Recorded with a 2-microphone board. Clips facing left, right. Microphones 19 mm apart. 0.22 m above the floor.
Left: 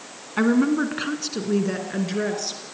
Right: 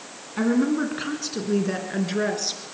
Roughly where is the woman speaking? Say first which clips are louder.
Left 2 dB; left.